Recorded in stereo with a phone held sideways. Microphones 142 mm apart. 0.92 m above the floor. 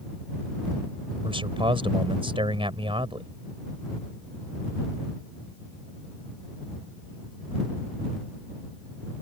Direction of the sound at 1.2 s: 40° right (ahead or behind).